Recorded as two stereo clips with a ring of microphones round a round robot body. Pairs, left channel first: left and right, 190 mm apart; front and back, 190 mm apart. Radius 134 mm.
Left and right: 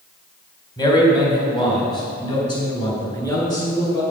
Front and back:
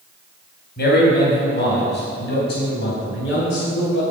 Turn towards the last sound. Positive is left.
turn(degrees=20)